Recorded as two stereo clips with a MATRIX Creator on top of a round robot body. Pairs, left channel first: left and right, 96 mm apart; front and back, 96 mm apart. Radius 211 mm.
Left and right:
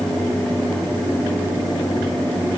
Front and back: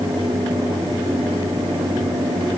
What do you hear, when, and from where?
Only background noise.